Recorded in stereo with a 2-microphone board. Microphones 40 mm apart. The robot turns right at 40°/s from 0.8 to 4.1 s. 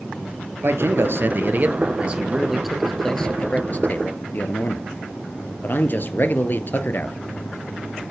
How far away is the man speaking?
About 2.5 m.